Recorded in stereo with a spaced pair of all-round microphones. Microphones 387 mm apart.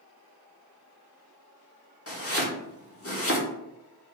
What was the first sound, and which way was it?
Chopping, 35° left (ahead or behind).